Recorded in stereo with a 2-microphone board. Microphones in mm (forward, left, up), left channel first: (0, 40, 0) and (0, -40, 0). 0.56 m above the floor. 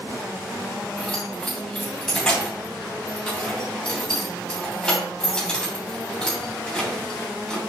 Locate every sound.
1.0 s keys jangling: 10° left (ahead or behind), 3 m